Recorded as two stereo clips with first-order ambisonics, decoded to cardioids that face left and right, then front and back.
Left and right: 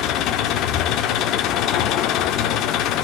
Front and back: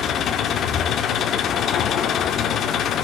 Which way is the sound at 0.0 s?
55° left.